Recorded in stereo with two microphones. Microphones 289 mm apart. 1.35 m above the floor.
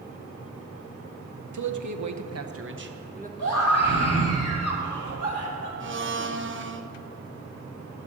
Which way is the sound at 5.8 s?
45° right (ahead or behind).